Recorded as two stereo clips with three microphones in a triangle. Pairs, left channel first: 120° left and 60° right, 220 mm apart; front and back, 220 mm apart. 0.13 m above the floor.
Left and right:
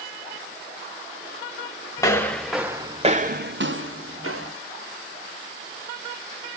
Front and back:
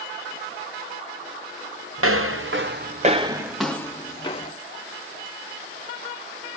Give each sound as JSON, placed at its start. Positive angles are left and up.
{"t": 2.0, "sound": "footsteps", "azimuth_deg": -165, "distance_m": 1.2}